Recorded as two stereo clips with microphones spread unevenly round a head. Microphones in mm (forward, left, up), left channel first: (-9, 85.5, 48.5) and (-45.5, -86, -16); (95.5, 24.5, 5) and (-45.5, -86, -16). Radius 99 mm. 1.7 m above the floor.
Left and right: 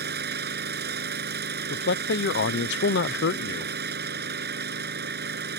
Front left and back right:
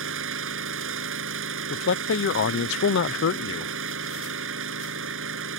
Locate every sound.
0.0 s an engine running: 135° right
1.7 s a man speaking: 55° left